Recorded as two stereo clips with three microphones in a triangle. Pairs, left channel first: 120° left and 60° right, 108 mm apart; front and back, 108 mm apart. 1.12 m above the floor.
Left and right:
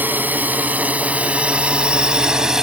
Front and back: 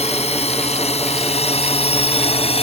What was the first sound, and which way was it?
A drone, 15° left.